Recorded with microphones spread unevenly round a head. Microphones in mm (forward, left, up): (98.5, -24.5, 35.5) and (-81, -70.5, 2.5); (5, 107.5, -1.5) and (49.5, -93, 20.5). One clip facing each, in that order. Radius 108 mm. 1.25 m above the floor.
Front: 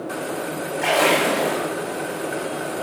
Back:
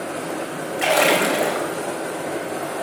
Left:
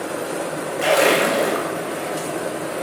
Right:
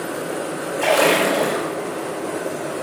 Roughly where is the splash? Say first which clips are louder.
Back 1 dB, even; behind.